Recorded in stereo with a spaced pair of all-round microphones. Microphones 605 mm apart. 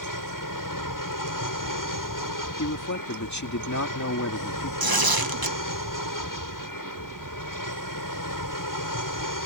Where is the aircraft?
30° left (ahead or behind).